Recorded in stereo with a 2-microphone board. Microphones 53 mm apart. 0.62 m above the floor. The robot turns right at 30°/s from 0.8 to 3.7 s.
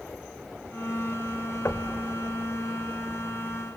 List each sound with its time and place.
1.6 s knocking: 55° left (ahead or behind), 1.6 m; by 2.0 s 65° left (ahead or behind), 1.6 m